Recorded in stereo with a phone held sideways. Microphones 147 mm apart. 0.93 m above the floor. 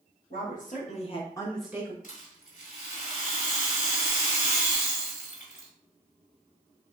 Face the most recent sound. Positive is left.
turn(degrees=70)  # may be behind; listen again after turning